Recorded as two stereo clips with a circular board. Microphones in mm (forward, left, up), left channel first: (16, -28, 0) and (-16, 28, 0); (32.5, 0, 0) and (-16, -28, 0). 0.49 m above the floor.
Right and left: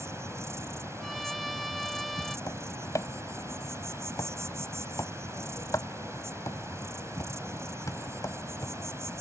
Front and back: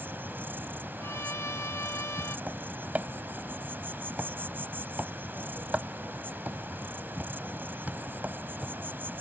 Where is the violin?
30° left.